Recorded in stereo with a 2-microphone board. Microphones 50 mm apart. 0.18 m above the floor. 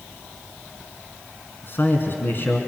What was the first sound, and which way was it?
A man speaking, 45° left (ahead or behind).